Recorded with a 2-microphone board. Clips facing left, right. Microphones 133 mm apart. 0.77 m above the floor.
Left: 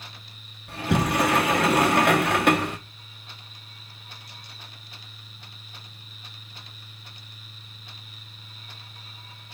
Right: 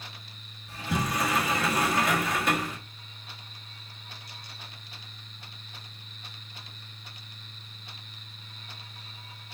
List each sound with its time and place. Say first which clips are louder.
0.7 s a sliding door: left 6 dB; 65° left (ahead or behind), 1.0 m